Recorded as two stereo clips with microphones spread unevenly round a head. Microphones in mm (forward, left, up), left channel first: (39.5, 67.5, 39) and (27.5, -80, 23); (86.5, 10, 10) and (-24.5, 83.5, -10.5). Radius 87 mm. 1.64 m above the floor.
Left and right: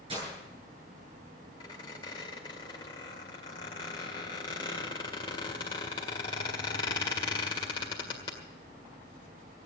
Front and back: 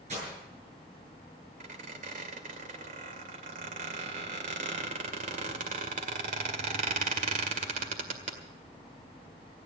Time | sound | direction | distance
0.1 | breaking glass | 155° right | 9 m
1.6 | a squeak | 140° left | 2.0 m